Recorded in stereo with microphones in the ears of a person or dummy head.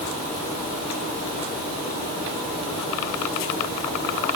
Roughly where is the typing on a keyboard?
I don't hear typing on a keyboard.